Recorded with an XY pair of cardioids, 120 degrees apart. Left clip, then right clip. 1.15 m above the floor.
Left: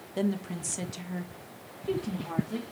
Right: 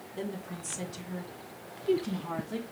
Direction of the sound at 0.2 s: 65° left.